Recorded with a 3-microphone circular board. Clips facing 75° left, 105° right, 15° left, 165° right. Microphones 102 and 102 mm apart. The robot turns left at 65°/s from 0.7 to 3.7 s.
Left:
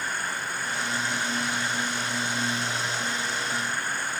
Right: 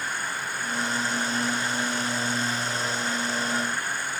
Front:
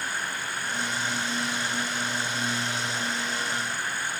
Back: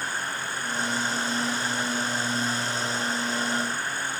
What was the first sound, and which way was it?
Only background noise.